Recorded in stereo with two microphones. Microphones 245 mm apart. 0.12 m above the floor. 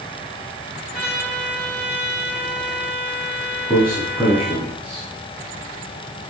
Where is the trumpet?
40° left (ahead or behind), 3 m.